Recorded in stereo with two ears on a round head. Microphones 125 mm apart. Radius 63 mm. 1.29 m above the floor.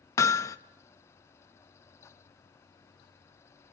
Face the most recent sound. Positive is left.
turn(degrees=25)  # may be behind; listen again after turning